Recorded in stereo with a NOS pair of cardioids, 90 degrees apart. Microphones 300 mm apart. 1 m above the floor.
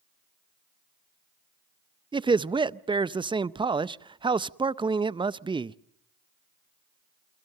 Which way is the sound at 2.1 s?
15° right.